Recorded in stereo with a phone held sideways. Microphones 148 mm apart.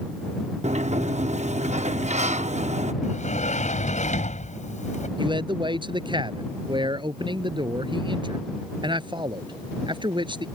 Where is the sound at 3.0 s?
55° left (ahead or behind).